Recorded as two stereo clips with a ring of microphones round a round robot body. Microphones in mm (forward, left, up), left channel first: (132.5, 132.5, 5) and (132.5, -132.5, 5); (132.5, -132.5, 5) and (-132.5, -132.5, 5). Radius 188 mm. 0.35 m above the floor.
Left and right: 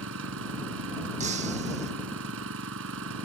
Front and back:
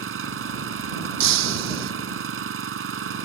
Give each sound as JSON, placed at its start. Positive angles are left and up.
{"t": 0.0, "sound": "an engine running", "azimuth_deg": -145}
{"t": 1.2, "sound": "breaking glass", "azimuth_deg": -165}